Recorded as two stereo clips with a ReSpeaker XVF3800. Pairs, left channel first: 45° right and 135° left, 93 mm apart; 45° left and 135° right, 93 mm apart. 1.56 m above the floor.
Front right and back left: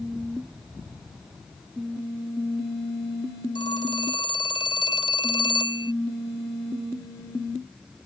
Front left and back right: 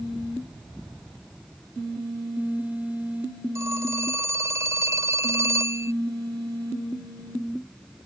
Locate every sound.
3.5 s a phone ringing: 75° right